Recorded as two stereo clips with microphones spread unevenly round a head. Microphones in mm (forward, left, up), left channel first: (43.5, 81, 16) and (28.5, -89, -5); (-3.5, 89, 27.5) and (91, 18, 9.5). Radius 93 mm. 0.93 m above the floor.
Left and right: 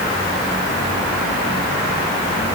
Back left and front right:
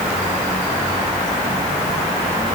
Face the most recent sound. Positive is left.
No sound to turn to.